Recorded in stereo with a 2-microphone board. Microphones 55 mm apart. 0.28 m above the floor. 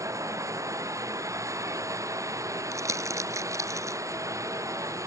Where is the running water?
75° right (ahead or behind).